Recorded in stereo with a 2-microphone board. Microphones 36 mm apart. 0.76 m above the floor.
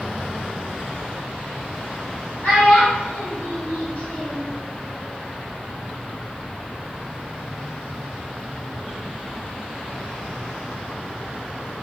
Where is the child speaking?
55° left (ahead or behind), 1.7 m.